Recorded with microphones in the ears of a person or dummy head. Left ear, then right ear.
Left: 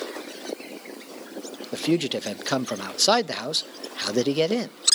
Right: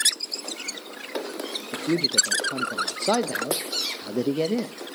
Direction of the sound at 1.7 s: 55° left (ahead or behind).